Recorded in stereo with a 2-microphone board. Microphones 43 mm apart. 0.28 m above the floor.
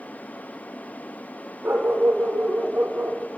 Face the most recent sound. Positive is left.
turn(degrees=-50)  # may be behind; listen again after turning